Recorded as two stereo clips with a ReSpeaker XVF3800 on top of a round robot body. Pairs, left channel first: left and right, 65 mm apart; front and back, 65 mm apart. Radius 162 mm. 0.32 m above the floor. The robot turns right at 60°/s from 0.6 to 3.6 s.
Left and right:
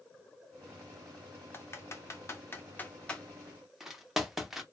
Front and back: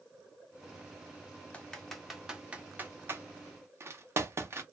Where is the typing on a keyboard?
60° left, 0.8 m; by 4.6 s 175° right, 0.8 m.